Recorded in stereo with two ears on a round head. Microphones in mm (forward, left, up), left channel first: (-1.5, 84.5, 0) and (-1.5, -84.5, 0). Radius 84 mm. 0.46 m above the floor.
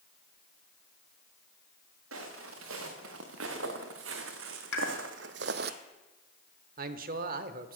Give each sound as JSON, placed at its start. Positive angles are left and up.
{"t": 2.1, "sound": "footsteps", "side_deg": -85, "distance_m": 3.5}
{"t": 4.7, "sound": "a pop", "side_deg": 70, "distance_m": 2.5}
{"t": 6.8, "sound": "a man speaking", "side_deg": -50, "distance_m": 1.0}